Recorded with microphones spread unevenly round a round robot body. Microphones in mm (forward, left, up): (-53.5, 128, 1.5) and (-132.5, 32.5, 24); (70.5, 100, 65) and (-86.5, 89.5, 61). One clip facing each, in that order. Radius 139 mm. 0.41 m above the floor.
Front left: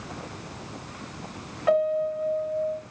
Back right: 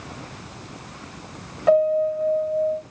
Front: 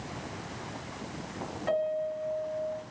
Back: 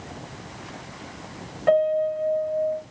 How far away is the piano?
About 1.7 m.